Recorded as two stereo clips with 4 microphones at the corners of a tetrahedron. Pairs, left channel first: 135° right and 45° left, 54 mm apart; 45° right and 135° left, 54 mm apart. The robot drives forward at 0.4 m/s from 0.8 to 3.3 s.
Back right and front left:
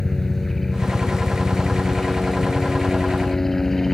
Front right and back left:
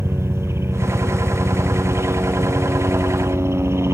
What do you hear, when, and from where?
0.0 s a helicopter: 140° left; by 4.0 s 145° left